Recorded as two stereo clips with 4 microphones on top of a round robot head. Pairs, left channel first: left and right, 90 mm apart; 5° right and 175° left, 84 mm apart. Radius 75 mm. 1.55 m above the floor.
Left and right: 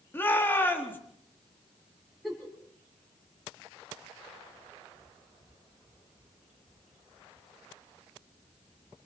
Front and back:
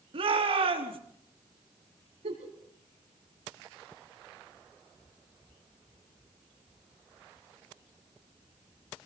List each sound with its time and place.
0.1 s a shout: 160° left, 4 m
2.2 s a giggle: straight behind, 6.5 m